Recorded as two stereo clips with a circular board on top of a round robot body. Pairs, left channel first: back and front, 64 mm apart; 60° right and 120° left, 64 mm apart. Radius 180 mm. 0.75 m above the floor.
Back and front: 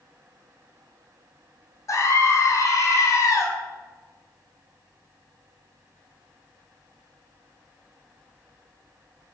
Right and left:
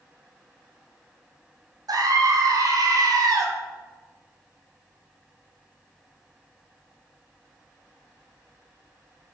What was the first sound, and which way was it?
A scream, 140° left.